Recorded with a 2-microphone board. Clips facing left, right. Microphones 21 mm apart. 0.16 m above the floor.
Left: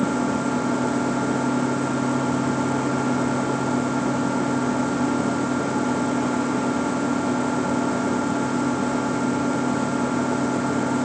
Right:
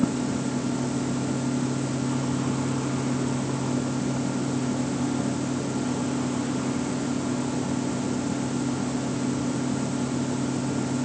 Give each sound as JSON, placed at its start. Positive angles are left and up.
{"t": 0.0, "sound": "an engine running", "side_deg": 55}